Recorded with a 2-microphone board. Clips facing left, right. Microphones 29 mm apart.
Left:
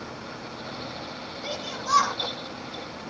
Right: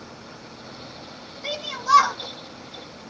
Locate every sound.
1.4 s a shout: 25° right (ahead or behind), 2.5 m